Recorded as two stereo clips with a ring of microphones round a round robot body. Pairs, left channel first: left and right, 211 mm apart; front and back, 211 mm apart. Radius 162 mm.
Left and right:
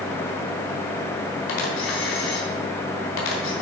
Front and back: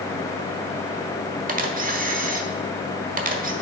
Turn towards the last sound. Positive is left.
turn(degrees=130)